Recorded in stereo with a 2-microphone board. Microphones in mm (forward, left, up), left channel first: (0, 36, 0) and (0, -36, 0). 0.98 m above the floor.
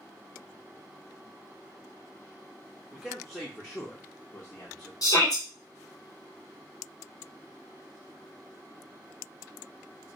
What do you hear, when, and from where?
2.9 s a man speaking: 10° right (ahead or behind), 0.7 m; by 4.9 s 55° left (ahead or behind), 1.3 m
5.0 s a shout: 55° left (ahead or behind), 1.5 m